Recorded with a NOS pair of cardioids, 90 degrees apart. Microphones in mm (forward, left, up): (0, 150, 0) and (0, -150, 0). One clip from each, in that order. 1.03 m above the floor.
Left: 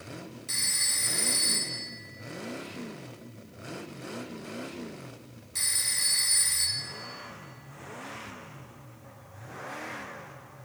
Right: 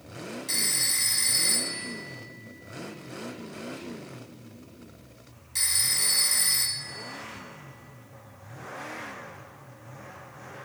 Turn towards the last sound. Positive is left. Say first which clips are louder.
# right 1 dB
turn(degrees=-15)